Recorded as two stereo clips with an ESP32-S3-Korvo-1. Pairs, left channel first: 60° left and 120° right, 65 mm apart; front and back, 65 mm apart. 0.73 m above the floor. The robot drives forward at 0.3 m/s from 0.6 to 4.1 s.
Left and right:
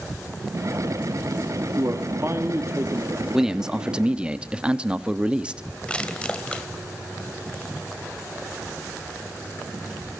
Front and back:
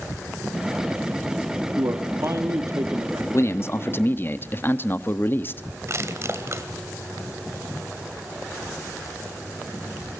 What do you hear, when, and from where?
1.8 s a man speaking: 155° right, 1.5 m; by 3.2 s 160° right, 1.8 m
3.3 s a man speaking: 40° right, 1.1 m; by 5.6 s 50° right, 1.0 m
5.9 s crushing: 135° left, 1.7 m